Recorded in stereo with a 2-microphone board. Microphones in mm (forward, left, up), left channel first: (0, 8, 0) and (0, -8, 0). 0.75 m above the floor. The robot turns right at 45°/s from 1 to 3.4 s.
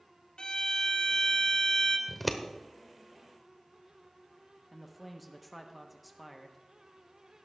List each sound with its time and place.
0.4 s a violin: 80° left, 1.1 m; by 2.0 s 125° left, 1.1 m
2.1 s scissors: 10° left (ahead or behind), 1.0 m; by 2.4 s 5° right (ahead or behind), 1.0 m
4.7 s a man speaking: 5° left (ahead or behind), 0.8 m